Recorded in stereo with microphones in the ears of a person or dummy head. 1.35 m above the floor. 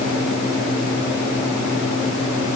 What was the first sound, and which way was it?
Only background noise.